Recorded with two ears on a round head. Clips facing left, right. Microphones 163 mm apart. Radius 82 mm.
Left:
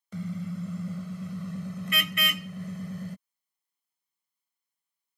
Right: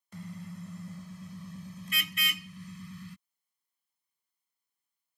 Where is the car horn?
70° left (ahead or behind); by 3.2 s 45° left (ahead or behind).